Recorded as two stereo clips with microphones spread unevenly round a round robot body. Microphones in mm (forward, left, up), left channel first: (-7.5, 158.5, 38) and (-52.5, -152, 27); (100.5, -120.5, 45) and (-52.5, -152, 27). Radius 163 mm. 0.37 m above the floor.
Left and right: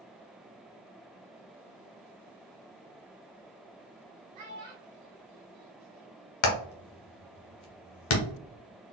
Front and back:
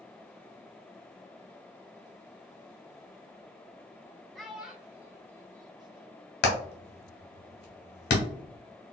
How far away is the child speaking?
About 1.8 m.